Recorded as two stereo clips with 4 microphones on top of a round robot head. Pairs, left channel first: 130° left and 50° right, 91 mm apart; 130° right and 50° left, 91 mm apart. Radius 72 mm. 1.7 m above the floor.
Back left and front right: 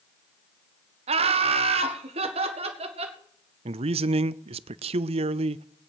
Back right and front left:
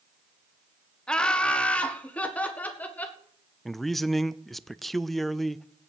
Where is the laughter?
50° right, 1.1 m; by 3.2 s 55° right, 2.5 m.